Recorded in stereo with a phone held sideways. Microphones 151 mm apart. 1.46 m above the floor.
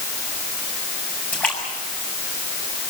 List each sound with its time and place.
1.3 s a splash: 10° left (ahead or behind), 7.5 m